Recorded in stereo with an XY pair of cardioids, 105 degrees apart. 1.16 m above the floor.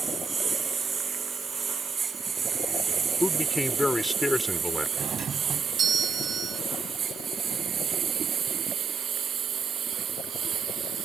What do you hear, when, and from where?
0.0 s a lawn mower: 35° right; by 11.1 s 60° right
3.2 s a man speaking: 10° left
5.0 s a doorbell: 50° right